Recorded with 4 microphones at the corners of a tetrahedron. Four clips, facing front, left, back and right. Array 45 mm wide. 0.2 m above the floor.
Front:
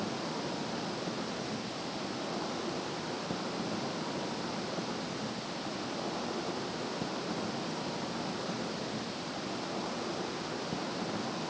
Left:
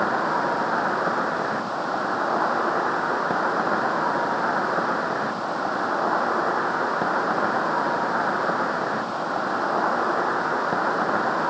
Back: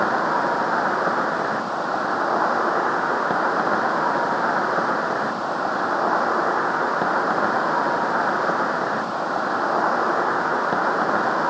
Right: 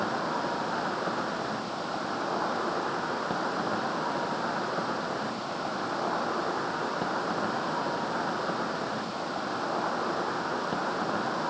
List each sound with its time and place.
0.0 s an insect: 155° left